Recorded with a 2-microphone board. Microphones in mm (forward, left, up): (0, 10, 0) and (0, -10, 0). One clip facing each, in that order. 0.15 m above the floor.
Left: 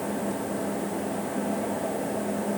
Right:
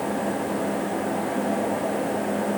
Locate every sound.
Only background noise.